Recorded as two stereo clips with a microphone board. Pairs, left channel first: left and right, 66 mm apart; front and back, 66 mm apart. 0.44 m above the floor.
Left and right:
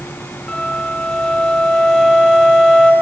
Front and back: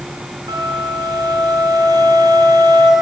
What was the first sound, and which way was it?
A flute, 175° left.